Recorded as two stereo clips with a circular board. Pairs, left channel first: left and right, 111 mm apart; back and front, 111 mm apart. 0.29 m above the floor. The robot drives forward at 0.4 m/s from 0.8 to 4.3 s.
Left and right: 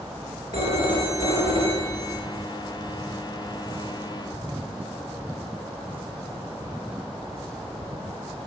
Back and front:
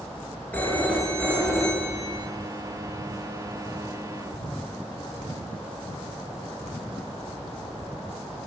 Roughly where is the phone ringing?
Right.